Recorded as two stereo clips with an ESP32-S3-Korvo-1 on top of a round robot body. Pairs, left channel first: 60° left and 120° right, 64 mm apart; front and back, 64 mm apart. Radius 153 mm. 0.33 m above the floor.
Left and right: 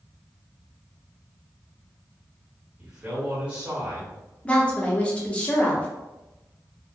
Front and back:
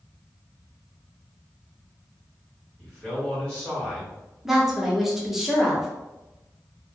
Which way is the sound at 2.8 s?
65° right.